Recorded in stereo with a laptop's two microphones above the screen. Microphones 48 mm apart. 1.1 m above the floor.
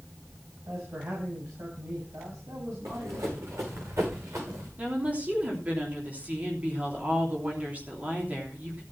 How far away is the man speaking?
About 7.5 m.